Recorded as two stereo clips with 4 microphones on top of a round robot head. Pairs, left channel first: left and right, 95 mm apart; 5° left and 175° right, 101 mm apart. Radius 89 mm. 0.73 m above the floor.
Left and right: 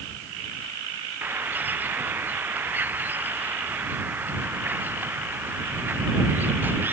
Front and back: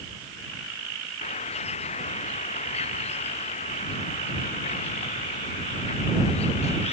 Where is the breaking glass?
I don't hear breaking glass.